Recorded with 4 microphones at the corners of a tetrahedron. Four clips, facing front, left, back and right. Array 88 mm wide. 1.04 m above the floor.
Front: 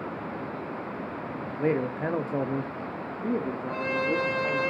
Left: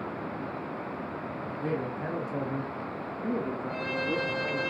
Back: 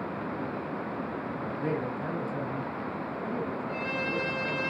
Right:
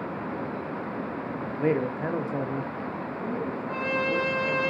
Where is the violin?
55° right, 1.4 m.